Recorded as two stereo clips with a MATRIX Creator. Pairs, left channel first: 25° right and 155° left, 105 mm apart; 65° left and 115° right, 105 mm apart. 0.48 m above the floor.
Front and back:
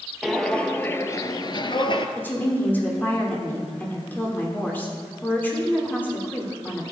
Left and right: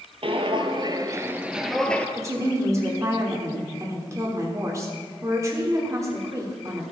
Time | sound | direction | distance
0.2 | footsteps | 110° right | 0.8 m
2.2 | a woman speaking | 80° right | 1.4 m